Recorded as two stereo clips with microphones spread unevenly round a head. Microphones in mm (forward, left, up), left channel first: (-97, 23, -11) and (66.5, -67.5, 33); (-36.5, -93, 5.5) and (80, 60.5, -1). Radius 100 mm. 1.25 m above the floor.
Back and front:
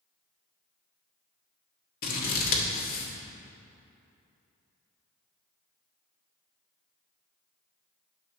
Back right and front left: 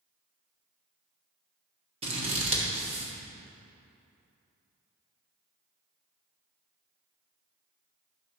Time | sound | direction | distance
2.0 | scissors | 115° left | 1.2 m